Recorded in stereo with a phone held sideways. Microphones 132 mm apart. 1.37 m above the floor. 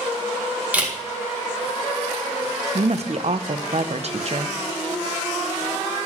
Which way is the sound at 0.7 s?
10° right (ahead or behind).